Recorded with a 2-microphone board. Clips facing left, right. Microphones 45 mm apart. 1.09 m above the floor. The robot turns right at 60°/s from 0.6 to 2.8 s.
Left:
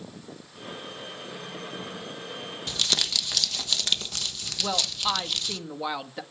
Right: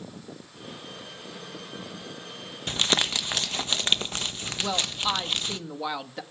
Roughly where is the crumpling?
Right.